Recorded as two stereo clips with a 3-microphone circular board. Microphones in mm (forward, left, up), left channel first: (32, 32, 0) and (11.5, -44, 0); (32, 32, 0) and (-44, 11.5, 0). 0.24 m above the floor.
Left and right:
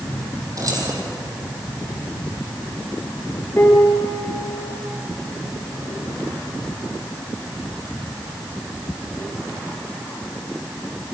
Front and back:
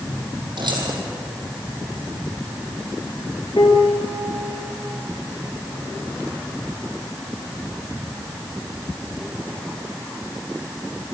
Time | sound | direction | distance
0.6 | keys jangling | 150° right | 5 m
3.6 | a piano | 20° left | 4.5 m